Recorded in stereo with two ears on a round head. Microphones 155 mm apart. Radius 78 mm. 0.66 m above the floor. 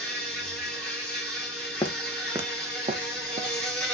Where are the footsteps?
20° left (ahead or behind), 0.6 m; by 3.6 s 40° right (ahead or behind), 1.5 m.